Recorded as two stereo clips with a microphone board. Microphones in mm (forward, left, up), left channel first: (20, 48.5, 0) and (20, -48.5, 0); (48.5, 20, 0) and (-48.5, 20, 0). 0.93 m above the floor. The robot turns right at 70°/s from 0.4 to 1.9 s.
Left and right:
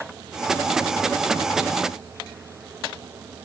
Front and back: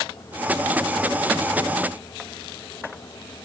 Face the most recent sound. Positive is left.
No sound to turn to.